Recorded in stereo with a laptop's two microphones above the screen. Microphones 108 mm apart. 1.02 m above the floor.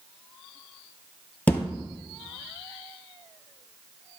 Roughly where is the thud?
Centre.